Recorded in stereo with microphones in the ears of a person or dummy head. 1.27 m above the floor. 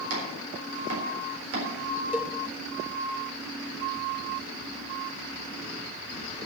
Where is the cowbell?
Centre (ahead or behind), 0.5 m.